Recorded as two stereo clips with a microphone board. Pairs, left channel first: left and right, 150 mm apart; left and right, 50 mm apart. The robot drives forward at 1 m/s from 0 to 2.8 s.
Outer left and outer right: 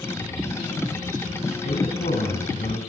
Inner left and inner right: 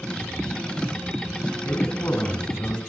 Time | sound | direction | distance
1.6 | a man speaking | 65° left (ahead or behind) | 6 m